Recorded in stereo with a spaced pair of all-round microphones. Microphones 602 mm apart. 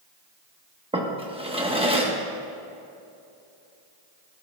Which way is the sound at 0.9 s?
10° right (ahead or behind).